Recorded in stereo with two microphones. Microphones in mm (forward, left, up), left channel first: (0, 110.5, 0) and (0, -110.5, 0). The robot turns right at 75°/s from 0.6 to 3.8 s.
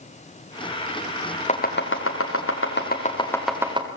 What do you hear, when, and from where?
1.5 s chopping: 30° left (ahead or behind), 4 m; by 3.9 s 25° right (ahead or behind), 4 m